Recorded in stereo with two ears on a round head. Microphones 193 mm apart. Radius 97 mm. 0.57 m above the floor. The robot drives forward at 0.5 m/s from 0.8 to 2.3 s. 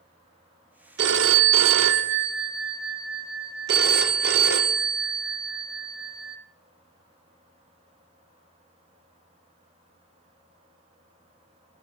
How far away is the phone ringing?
About 0.6 m.